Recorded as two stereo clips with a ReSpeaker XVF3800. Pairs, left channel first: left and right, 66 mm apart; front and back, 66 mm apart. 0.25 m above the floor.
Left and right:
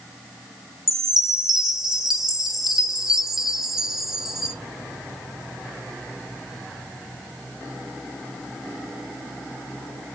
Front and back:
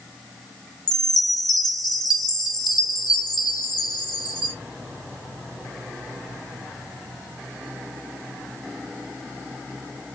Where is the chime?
5° right, 0.6 m.